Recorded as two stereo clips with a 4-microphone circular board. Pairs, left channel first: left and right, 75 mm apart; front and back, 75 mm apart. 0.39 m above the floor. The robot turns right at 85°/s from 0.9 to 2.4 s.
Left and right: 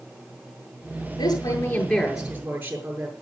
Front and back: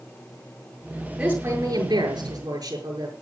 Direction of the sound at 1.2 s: 100° left.